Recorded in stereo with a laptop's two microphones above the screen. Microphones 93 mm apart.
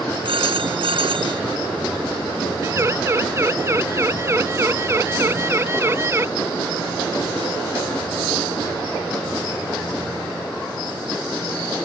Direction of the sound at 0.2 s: 65° right (ahead or behind).